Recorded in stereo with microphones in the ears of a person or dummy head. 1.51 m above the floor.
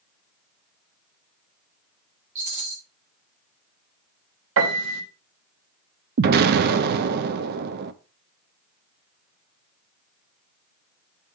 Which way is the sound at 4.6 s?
75° right (ahead or behind).